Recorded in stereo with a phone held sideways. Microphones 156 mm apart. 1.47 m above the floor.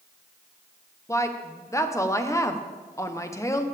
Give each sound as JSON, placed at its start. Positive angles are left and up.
{"t": 1.1, "sound": "a woman speaking", "side_deg": 20, "distance_m": 0.9}